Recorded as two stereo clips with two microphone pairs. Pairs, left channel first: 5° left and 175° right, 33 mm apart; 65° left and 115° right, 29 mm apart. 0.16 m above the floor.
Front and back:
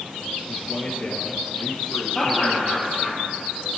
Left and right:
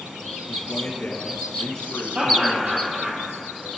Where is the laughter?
65° right, 4 m.